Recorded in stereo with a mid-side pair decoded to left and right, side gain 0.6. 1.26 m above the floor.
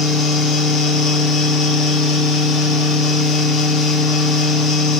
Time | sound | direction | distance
0.0 | a fan | 60° left | 1.0 m